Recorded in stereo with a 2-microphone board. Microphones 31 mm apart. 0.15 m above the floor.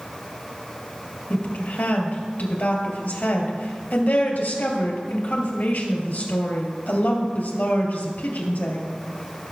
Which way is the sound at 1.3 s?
60° left (ahead or behind).